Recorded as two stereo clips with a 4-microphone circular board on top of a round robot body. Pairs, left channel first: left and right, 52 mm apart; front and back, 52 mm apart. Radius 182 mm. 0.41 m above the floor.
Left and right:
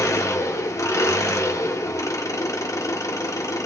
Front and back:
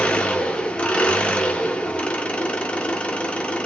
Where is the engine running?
70° left, 0.8 m.